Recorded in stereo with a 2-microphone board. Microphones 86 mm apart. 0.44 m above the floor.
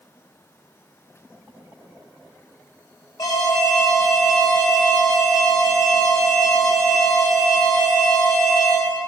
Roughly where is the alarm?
Left.